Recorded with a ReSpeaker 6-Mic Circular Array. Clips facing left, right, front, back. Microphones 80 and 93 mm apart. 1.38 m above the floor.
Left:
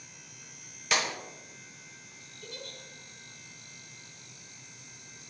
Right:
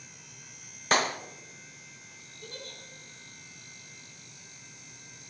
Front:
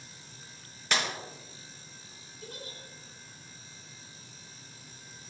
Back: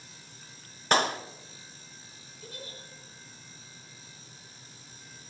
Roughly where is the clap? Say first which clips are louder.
Right 4 dB, back 7 dB; behind right.